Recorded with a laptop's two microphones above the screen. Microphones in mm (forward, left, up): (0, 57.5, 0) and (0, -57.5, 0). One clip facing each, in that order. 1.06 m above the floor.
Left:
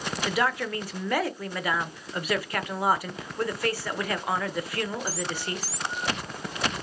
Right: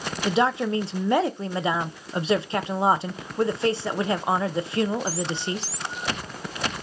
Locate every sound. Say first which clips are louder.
0.2 s a woman speaking: right 5 dB; 25° right (ahead or behind), 0.6 m